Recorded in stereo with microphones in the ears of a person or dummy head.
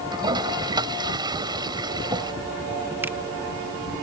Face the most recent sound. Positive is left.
turn(degrees=-10)  # may be behind; listen again after turning